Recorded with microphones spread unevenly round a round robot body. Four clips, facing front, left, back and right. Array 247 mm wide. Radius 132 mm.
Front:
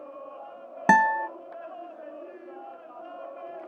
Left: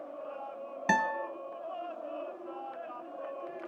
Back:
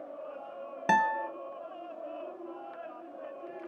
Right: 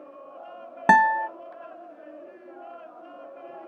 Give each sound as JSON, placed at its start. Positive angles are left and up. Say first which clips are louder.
{"t": 0.9, "sound": "a guitar", "louder": "right 11 dB, front 6 dB", "azimuth_deg": -35, "distance_m": 0.7}